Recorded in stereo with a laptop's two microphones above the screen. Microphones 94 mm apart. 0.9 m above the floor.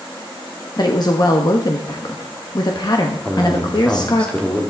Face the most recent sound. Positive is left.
turn(degrees=15)  # may be behind; listen again after turning